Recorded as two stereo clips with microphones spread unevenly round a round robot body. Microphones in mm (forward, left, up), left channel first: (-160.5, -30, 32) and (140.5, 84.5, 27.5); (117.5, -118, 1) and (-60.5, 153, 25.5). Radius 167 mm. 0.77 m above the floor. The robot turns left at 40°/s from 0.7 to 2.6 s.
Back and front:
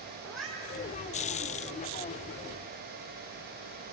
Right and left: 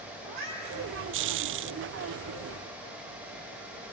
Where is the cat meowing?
110° left, 4 m.